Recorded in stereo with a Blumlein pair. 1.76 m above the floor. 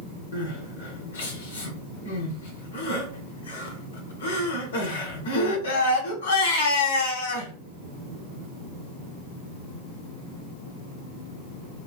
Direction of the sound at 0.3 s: 65° left.